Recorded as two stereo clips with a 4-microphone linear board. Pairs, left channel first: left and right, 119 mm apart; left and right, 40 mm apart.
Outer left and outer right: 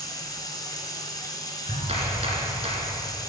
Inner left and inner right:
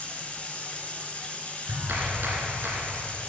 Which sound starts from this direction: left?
Running water, at 0.0 s.